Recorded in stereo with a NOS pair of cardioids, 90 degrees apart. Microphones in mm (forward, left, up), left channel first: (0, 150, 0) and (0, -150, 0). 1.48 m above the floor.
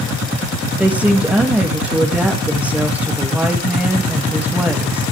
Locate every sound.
0.8 s a woman speaking: 5° right, 2.5 m